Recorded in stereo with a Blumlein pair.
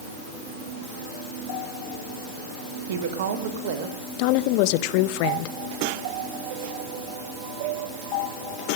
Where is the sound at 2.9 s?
55° right, 1.7 m.